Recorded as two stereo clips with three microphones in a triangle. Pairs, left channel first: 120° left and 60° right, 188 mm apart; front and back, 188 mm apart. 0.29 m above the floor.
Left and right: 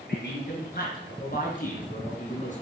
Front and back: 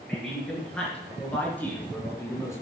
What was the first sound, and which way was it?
A man speaking, 90° left.